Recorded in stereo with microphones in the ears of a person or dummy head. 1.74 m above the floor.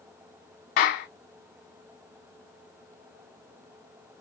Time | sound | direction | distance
0.8 | a clap | 45° left (ahead or behind) | 1.0 m